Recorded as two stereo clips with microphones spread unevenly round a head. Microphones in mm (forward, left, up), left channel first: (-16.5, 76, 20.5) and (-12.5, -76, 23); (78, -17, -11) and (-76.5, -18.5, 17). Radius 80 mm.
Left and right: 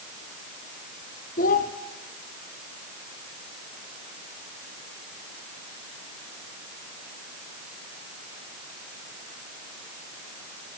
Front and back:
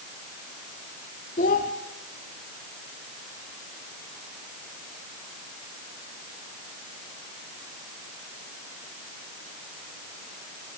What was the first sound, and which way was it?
A child speaking, 50° left.